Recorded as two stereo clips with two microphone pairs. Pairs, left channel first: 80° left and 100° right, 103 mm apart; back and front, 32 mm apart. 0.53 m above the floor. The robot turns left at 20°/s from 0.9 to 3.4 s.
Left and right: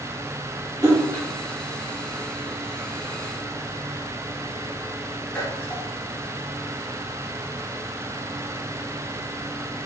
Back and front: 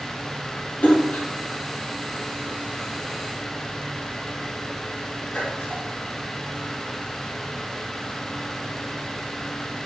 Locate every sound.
0.8 s a splash: 155° right, 2 m; by 5.8 s 155° left, 2 m